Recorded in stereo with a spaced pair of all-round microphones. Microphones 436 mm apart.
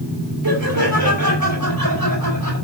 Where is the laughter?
50° right (ahead or behind), 5.5 m.